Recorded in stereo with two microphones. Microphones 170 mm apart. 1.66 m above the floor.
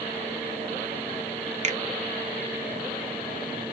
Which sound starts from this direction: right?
A finger snap, at 1.6 s.